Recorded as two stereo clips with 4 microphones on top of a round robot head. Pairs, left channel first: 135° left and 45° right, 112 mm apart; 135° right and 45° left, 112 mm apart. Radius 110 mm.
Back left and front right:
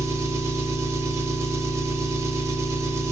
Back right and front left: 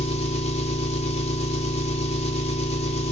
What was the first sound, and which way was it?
An engine running, 110° right.